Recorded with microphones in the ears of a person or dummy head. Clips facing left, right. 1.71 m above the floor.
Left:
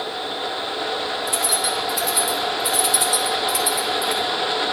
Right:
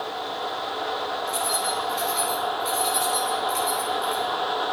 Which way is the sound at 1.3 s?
45° left (ahead or behind).